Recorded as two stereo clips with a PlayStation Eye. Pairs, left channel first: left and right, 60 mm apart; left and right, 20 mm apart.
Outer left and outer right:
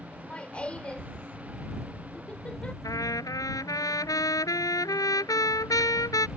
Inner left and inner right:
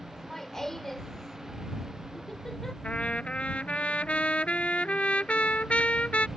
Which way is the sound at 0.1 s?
20° left (ahead or behind).